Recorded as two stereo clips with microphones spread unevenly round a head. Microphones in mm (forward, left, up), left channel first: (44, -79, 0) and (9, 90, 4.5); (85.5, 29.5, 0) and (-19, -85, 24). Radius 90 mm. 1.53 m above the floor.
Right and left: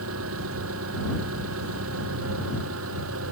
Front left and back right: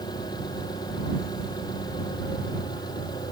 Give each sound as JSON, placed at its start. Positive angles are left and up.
{"t": 0.0, "sound": "an engine running", "azimuth_deg": 120}